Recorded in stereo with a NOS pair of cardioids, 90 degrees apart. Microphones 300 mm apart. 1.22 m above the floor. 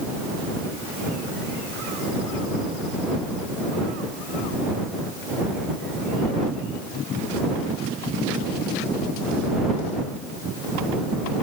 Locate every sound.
Only background noise.